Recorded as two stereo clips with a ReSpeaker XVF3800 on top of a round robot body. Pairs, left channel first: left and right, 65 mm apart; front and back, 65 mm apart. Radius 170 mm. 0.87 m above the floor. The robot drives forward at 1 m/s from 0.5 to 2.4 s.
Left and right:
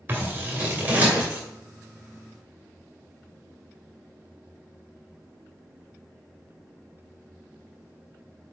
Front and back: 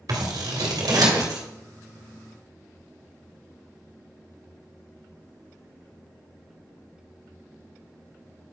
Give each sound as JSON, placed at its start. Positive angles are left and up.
{"t": 0.1, "sound": "scissors", "azimuth_deg": -150, "distance_m": 1.9}